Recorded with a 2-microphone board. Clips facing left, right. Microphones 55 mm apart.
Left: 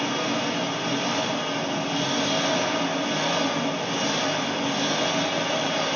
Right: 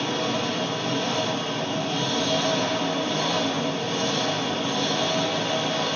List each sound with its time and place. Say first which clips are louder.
0.0 s an engine running: even; 50° left (ahead or behind), 1.2 m